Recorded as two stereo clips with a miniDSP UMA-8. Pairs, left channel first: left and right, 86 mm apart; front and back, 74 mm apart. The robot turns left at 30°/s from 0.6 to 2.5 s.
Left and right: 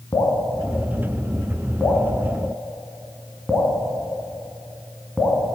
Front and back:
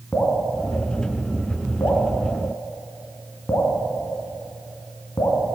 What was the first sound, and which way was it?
Dripping, 65° left.